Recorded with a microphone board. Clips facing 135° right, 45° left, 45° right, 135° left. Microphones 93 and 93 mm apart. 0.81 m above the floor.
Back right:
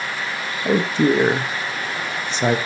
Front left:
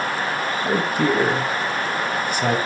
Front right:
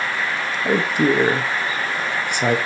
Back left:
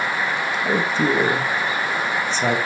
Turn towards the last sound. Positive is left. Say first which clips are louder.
# back right 4 dB, front right 3 dB
turn(degrees=-100)